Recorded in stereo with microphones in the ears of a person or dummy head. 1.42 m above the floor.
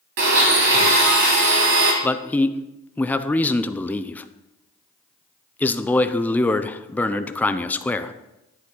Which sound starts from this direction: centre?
A man speaking, at 2.0 s.